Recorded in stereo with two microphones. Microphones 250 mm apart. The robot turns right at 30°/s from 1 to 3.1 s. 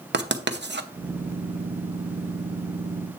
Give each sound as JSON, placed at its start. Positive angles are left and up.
{"t": 0.1, "sound": "writing", "side_deg": -45, "distance_m": 0.8}